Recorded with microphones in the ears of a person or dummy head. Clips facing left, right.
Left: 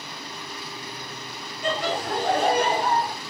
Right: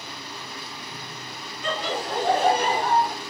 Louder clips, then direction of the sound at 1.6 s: Left 2 dB; 40° left (ahead or behind).